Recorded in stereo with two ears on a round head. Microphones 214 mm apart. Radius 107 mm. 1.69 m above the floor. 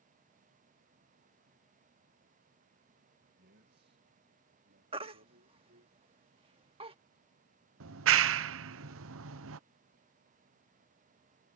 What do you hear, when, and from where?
3.4 s a man speaking: 40° right (ahead or behind); by 5.9 s 50° right (ahead or behind)
4.9 s a baby crying: 25° right (ahead or behind)
7.8 s a clap: 60° right (ahead or behind)